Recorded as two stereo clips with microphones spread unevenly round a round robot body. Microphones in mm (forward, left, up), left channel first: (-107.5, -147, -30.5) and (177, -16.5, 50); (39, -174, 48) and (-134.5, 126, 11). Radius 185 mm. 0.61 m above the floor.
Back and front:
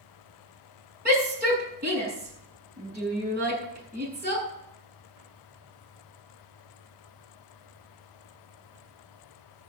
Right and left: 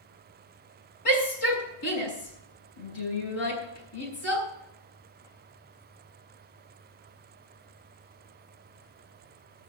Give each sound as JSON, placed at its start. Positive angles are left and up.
{"t": 1.1, "sound": "a shout", "azimuth_deg": -35, "distance_m": 7.5}